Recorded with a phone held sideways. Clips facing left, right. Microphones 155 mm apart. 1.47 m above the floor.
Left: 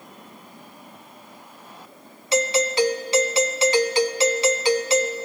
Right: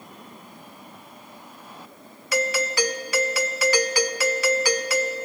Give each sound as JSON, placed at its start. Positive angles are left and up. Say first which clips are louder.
{"t": 2.3, "sound": "a doorbell", "louder": "left 4 dB", "side_deg": 25, "distance_m": 0.5}